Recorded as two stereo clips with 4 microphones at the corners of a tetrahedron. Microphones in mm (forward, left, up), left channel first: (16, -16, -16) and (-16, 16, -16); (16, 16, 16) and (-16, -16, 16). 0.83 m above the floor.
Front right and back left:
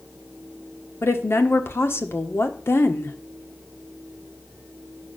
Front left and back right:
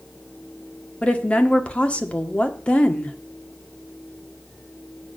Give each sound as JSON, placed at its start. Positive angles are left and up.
{"t": 1.0, "sound": "a woman speaking", "azimuth_deg": -20, "distance_m": 1.5}